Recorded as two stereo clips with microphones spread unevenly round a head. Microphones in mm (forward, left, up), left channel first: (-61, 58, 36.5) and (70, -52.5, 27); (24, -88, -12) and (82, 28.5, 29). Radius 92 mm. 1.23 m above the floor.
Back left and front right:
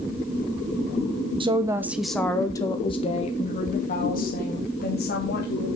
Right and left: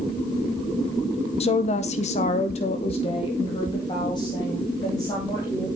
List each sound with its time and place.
1.4 s a woman speaking: 100° right, 1.2 m; by 5.7 s 175° left, 3.5 m